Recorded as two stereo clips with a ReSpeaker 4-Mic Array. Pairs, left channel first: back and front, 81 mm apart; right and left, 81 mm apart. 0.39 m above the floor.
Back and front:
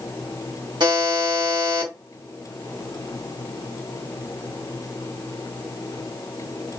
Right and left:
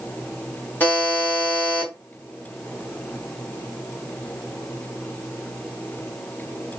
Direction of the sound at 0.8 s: 20° right.